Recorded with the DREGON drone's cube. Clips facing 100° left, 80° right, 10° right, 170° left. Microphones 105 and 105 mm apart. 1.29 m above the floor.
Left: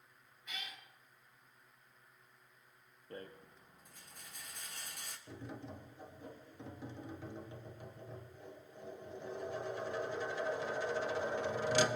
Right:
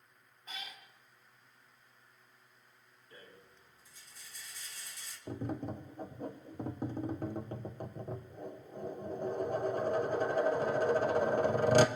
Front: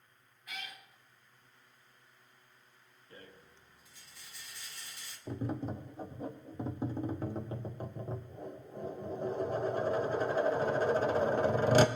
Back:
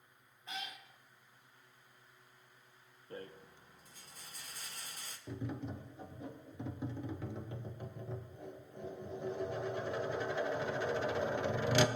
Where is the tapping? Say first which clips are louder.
Right 10 dB, front 5 dB; 55° right, 0.8 m.